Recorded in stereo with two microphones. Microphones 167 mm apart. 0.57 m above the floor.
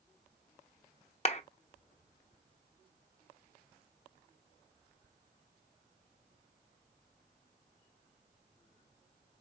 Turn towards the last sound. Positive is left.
turn(degrees=40)  # may be behind; listen again after turning